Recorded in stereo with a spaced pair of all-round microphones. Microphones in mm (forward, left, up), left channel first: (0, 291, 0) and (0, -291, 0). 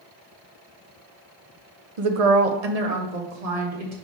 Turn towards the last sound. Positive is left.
turn(degrees=-65)  # may be behind; listen again after turning